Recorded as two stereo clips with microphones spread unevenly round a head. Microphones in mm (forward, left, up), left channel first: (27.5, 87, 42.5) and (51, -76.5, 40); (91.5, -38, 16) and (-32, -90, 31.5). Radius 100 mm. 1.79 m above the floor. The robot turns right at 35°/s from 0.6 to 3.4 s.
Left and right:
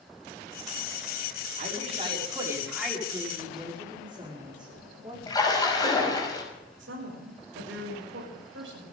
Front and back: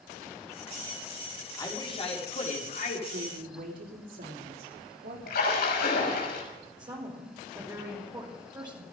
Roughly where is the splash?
Ahead left.